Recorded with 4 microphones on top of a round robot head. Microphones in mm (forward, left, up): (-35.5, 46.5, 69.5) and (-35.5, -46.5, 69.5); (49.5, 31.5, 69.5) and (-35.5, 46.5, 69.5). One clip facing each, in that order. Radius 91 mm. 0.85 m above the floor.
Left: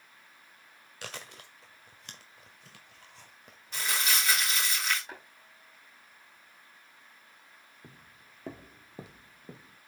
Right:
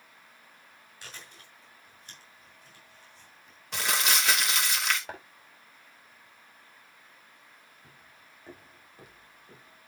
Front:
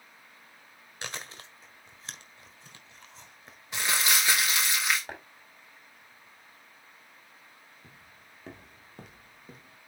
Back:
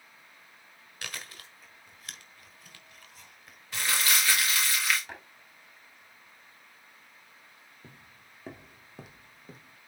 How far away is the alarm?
I don't hear an alarm.